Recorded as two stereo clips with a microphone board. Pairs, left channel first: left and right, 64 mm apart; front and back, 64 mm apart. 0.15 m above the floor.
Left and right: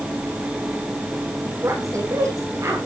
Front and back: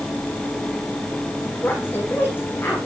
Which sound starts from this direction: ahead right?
A woman speaking, at 1.6 s.